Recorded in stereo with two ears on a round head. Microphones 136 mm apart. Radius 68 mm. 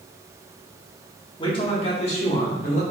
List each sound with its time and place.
1.4 s a man speaking: 30° left (ahead or behind), 1.2 m; by 2.8 s 55° left (ahead or behind), 1.8 m